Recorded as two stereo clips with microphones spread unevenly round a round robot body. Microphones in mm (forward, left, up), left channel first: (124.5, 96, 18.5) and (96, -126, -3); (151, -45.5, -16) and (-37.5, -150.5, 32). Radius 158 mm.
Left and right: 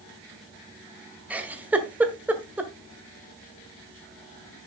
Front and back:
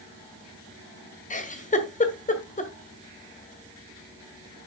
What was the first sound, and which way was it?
A giggle, 15° right.